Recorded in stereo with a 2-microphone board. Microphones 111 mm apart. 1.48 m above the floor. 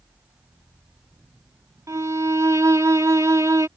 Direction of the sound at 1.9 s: 30° right (ahead or behind).